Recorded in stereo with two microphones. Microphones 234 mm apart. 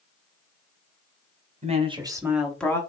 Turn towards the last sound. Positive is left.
turn(degrees=10)  # may be behind; listen again after turning